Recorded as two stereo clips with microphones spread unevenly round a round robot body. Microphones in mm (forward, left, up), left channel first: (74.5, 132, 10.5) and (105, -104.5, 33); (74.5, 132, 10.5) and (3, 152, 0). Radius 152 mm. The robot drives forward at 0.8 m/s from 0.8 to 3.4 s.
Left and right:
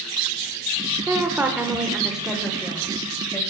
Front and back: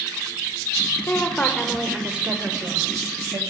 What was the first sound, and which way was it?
A woman speaking, straight ahead.